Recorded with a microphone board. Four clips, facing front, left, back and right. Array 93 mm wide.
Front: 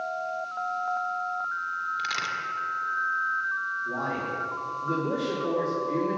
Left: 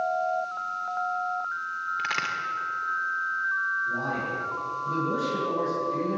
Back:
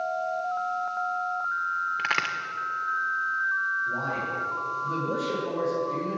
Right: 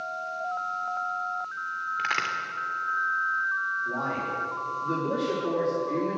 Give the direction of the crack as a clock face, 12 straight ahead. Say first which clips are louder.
Right 2 dB, back 2 dB; 6 o'clock.